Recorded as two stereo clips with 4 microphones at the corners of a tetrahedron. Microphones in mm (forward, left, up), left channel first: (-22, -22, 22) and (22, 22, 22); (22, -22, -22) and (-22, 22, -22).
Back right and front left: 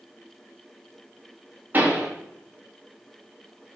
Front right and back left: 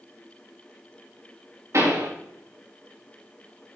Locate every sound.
1.7 s a pop: 105° left, 4.5 m